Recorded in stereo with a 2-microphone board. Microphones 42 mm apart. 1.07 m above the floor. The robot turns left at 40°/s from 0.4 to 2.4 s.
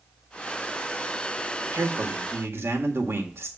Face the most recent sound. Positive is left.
turn(degrees=-75)  # may be behind; listen again after turning